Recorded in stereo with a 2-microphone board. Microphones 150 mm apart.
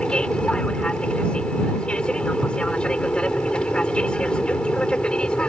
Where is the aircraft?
5° left (ahead or behind).